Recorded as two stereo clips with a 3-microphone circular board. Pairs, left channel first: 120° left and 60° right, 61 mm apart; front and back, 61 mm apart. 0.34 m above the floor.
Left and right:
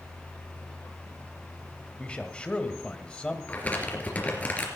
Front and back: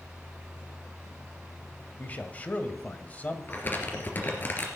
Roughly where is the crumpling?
Ahead left.